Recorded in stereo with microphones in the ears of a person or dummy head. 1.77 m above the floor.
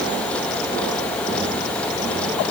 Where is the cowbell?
I don't hear a cowbell.